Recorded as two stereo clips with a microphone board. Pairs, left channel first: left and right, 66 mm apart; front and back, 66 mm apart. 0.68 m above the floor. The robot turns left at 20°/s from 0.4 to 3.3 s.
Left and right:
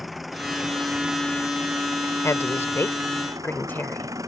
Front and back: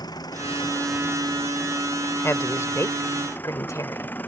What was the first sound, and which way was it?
An engine running, straight ahead.